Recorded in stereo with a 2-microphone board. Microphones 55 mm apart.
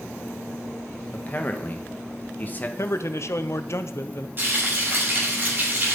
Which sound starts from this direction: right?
Frying, at 4.4 s.